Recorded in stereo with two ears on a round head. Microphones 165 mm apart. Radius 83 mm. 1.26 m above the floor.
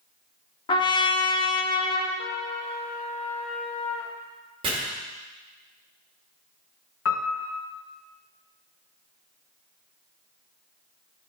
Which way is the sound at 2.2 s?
35° left (ahead or behind).